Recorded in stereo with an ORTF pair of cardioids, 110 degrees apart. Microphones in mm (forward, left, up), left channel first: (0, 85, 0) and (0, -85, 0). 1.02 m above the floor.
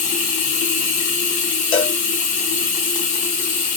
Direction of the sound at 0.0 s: 50° left.